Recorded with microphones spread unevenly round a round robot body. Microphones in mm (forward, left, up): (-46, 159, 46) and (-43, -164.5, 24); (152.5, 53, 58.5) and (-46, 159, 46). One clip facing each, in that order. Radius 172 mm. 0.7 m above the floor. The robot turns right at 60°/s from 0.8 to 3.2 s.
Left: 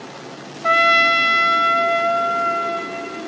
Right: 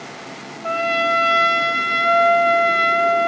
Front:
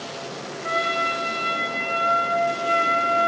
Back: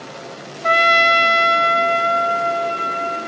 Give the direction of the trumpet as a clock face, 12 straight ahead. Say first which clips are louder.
Left 1 dB, back 9 dB; 7 o'clock.